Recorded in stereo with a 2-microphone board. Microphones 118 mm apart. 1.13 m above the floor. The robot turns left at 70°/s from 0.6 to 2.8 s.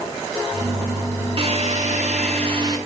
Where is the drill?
50° right, 5.5 m; by 2.8 s 150° right, 5.5 m.